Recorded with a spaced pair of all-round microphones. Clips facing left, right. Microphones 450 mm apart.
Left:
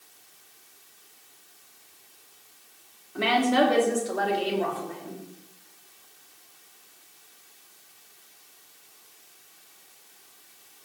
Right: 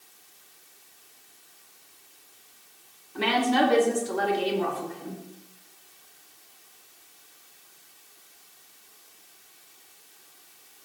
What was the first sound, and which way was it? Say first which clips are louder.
A woman speaking: left 1 dB; 5° right (ahead or behind).